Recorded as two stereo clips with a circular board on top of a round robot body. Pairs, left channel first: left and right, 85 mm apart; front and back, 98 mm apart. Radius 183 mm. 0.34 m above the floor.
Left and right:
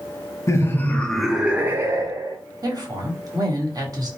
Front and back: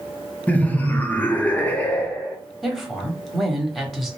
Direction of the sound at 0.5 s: 70° left.